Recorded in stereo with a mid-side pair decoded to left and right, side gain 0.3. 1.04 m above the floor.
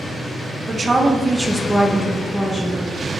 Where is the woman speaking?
50° right, 0.7 m; by 2.8 s 45° left, 1.0 m.